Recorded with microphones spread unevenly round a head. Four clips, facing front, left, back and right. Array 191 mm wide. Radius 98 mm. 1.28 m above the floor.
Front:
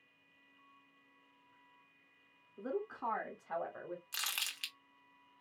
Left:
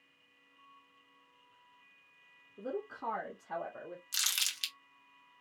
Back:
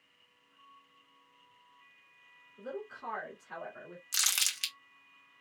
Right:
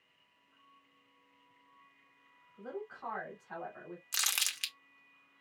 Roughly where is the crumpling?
Behind right.